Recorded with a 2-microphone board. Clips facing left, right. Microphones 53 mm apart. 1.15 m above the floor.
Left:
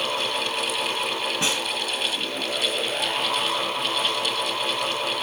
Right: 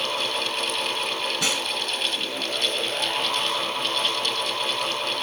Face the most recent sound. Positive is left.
turn(degrees=30)  # may be behind; listen again after turning